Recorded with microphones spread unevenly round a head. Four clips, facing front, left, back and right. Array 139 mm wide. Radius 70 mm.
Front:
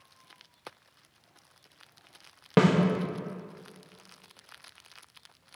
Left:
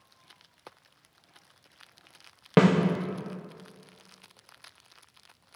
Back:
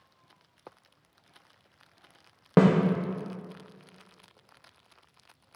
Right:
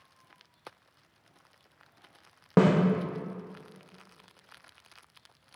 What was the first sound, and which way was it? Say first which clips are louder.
A snare drum: left 1 dB, back 2 dB; 165° left.